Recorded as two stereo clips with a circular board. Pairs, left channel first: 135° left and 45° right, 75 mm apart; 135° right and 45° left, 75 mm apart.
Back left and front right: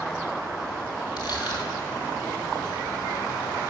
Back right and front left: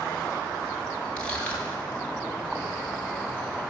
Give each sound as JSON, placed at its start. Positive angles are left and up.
{"t": 1.2, "sound": "crushing", "azimuth_deg": 150, "distance_m": 2.5}